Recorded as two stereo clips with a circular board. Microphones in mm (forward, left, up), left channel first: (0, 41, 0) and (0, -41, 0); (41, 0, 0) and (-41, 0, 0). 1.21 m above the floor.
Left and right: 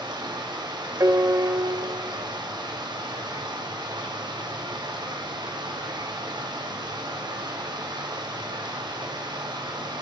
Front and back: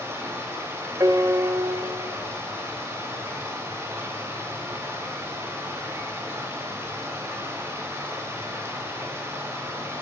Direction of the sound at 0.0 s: 120° right.